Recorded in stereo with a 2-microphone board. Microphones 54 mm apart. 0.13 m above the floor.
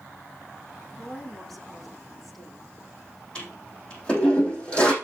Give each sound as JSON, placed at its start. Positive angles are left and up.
{"t": 1.0, "sound": "a woman speaking", "side_deg": 5, "distance_m": 6.0}
{"t": 3.4, "sound": "a toilet flushing", "side_deg": 20, "distance_m": 4.0}